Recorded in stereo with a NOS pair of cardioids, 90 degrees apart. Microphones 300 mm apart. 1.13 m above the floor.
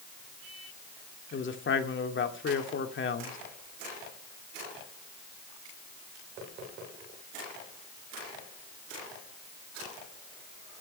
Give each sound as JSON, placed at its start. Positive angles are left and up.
{"t": 1.3, "sound": "a man speaking", "azimuth_deg": 40, "distance_m": 2.5}